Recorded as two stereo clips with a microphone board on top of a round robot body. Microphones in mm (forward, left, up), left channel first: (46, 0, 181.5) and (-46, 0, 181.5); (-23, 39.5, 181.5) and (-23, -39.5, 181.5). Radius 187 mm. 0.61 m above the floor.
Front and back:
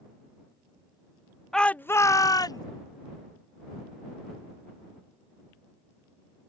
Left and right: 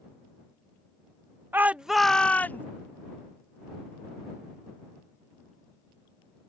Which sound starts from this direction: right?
A shout, at 1.5 s.